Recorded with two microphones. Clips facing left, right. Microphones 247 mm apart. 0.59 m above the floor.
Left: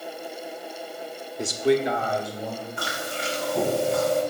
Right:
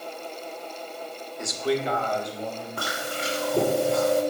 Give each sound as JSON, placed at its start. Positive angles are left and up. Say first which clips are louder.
{"t": 1.4, "sound": "a man speaking", "louder": "left 5 dB", "side_deg": 35, "distance_m": 0.8}
{"t": 2.8, "sound": "chewing", "louder": "even", "side_deg": -65, "distance_m": 2.5}